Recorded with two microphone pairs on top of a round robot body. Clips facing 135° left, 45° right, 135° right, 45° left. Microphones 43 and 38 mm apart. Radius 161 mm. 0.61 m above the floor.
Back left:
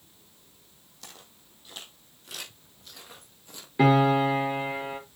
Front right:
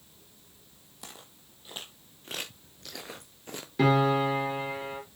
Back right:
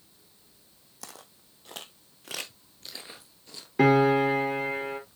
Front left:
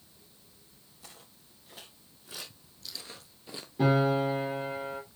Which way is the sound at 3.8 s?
150° right.